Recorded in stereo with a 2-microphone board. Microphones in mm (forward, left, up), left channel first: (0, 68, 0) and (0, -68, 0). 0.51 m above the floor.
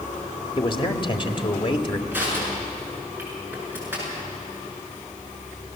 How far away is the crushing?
About 7 m.